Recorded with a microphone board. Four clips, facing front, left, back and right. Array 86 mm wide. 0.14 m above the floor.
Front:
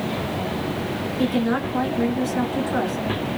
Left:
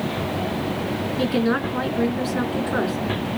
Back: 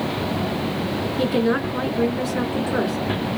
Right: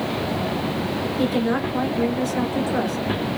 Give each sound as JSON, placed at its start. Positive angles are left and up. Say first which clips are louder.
{"t": 1.2, "sound": "a woman speaking", "louder": "left 1 dB, back 1 dB", "azimuth_deg": 110, "distance_m": 1.9}